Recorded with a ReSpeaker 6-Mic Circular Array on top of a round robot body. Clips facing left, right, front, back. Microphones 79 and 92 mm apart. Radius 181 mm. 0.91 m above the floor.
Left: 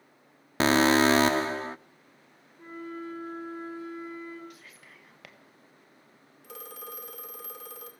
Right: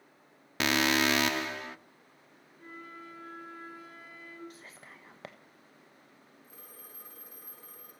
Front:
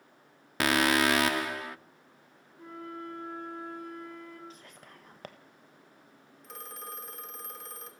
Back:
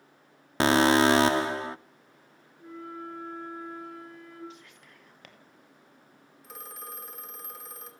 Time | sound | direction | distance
0.6 | an alarm | 130° left | 0.7 m
2.6 | a flute | 30° left | 6 m
4.5 | whispering | 40° right | 1.6 m
6.4 | a phone ringing | 95° left | 2.5 m